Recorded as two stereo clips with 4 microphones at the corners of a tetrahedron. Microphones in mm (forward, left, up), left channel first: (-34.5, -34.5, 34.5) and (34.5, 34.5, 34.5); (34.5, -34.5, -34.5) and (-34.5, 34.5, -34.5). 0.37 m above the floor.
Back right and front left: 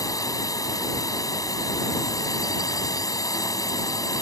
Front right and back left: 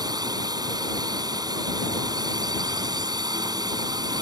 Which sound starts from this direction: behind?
A drone, at 0.0 s.